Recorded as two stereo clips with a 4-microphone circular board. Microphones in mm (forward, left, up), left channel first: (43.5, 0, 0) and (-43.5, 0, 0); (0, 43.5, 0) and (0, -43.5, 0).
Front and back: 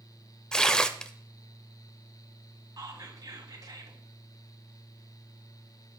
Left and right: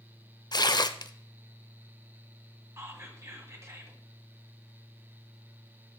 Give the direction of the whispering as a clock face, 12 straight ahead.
5 o'clock.